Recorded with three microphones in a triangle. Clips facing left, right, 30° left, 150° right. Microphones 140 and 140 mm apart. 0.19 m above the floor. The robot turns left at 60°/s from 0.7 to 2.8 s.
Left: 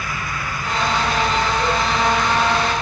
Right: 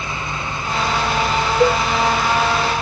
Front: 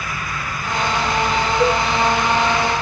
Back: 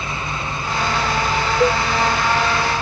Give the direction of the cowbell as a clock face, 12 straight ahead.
2 o'clock.